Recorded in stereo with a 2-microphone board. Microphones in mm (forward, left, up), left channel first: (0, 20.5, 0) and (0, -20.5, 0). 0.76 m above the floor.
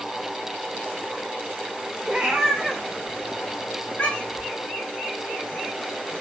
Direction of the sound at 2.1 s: 30° right (ahead or behind).